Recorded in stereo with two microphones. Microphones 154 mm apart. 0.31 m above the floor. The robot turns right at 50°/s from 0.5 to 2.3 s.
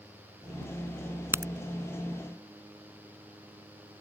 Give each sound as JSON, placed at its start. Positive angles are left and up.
{"t": 1.3, "sound": "a crack", "side_deg": -15}